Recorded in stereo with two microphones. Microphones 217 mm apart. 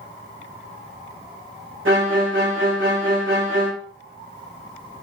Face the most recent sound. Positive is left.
turn(degrees=-75)  # may be behind; listen again after turning